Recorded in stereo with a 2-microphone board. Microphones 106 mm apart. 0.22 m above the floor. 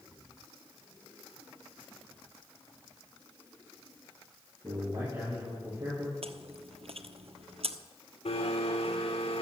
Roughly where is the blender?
Left.